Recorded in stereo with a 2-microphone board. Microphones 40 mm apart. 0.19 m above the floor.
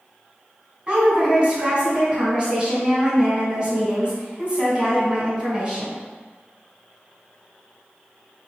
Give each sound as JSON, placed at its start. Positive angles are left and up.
{"t": 0.9, "sound": "a woman speaking", "side_deg": -20, "distance_m": 1.7}